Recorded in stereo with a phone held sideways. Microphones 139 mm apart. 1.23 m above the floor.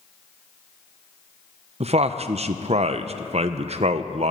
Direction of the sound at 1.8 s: 50° right (ahead or behind).